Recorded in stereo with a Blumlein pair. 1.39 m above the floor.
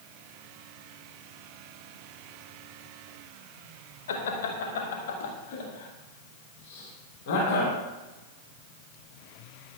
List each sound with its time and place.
4.1 s laughter: 60° left, 1.9 m; by 7.8 s 50° left, 5.5 m